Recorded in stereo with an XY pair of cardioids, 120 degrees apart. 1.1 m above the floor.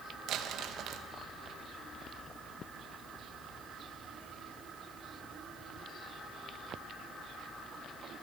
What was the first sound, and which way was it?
Crumpling, 70° right.